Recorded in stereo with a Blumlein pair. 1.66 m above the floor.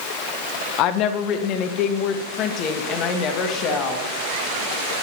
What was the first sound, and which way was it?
A woman speaking, 40° left.